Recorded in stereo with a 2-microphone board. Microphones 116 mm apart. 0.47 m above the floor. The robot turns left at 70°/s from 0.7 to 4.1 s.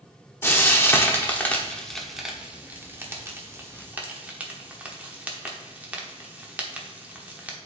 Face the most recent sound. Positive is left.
turn(degrees=-10)  # may be behind; listen again after turning